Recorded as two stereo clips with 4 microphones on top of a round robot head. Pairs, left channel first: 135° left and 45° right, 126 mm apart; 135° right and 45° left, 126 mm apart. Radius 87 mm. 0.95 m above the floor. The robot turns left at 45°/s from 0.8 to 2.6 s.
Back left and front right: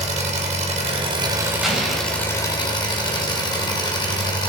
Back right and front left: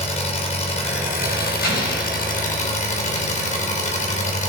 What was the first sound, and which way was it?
An engine running, 85° right.